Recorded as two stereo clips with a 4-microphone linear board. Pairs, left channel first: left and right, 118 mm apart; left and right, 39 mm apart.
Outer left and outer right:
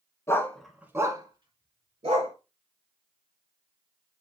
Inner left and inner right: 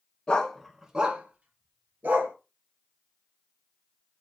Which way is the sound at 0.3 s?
25° left (ahead or behind).